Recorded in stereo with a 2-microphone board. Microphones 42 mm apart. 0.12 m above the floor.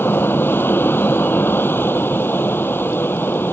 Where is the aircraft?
60° left (ahead or behind).